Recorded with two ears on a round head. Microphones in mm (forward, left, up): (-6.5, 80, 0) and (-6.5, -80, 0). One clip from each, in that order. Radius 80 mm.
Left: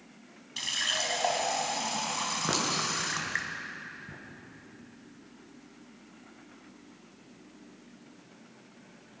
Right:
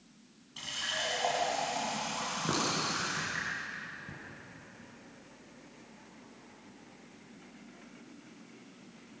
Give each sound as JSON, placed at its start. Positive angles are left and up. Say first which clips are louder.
{"t": 0.6, "sound": "a running tap", "louder": "left 5 dB", "side_deg": 50, "distance_m": 3.0}
{"t": 2.5, "sound": "a clink", "louder": "left 1 dB", "side_deg": 35, "distance_m": 7.5}